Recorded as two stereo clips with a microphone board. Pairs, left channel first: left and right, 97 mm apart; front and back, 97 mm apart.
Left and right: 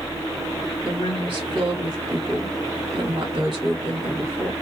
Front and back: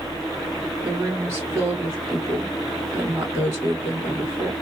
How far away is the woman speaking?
About 2.5 m.